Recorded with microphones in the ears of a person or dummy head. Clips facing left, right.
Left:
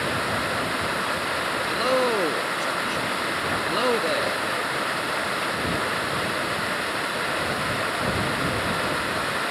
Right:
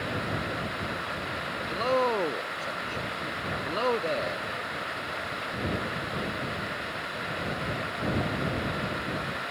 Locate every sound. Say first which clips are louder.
0.0 s running water: left 5 dB; 80° left
1.7 s a man speaking: left 3 dB; 20° left (ahead or behind)